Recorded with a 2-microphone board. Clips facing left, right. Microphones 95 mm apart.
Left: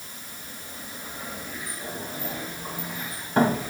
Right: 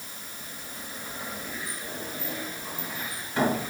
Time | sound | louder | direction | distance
1.7 | a sliding door | left 2 dB | 45° left (ahead or behind) | 4 m